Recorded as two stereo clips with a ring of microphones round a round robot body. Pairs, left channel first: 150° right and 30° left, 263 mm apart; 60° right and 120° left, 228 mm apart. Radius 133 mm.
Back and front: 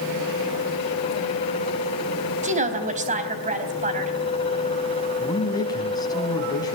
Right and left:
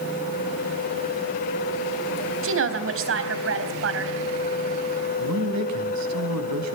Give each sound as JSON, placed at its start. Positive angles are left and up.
{"t": 2.4, "sound": "a woman speaking", "azimuth_deg": 95, "distance_m": 3.5}
{"t": 5.2, "sound": "a man speaking", "azimuth_deg": 135, "distance_m": 4.0}